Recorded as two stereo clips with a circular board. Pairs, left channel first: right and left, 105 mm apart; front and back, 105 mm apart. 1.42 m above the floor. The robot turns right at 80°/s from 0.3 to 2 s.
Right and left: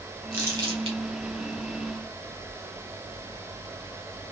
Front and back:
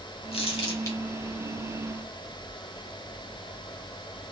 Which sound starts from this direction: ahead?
Crumpling, at 0.3 s.